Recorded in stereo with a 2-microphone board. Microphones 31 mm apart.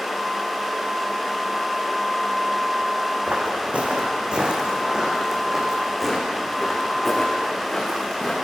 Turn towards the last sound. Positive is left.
turn(degrees=15)  # may be behind; listen again after turning